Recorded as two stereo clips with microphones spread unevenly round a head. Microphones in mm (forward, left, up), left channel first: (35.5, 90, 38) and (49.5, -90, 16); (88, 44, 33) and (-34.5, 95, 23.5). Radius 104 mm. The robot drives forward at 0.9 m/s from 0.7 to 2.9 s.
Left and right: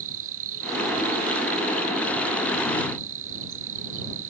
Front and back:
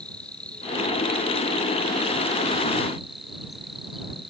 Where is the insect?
110° right; by 4.3 s 115° right.